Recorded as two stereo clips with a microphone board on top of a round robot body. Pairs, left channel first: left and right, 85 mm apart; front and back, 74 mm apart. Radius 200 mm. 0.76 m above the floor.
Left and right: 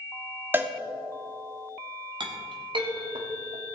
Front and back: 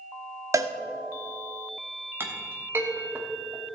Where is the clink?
120° right, 1.3 m.